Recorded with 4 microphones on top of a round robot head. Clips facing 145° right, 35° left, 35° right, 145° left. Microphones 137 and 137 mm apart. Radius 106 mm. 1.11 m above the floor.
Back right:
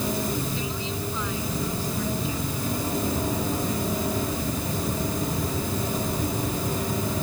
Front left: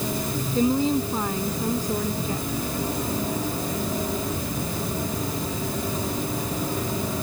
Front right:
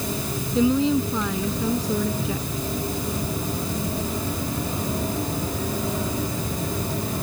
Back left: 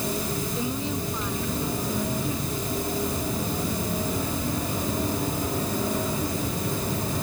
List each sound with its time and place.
0.6 s a woman speaking: 15° right